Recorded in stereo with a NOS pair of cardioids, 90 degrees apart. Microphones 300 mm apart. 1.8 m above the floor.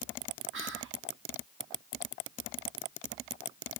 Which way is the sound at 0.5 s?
45° right.